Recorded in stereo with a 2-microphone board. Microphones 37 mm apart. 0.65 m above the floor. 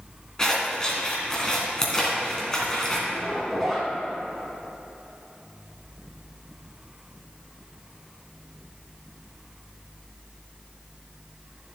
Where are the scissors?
15° left (ahead or behind), 2.5 m.